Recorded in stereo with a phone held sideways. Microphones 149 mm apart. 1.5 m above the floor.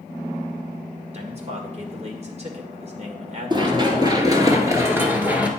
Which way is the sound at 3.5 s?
30° right (ahead or behind).